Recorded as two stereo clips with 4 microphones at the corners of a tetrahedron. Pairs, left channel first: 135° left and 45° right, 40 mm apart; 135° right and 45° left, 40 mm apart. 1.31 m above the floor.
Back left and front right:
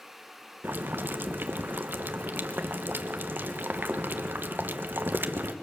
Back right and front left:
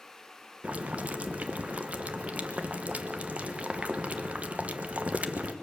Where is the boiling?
10° right, 1.2 m.